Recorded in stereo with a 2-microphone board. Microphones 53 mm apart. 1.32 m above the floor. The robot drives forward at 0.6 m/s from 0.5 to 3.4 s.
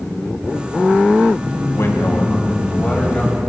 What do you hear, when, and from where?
1.7 s a man speaking: 55° left (ahead or behind), 0.9 m; by 3.4 s 25° left (ahead or behind), 1.7 m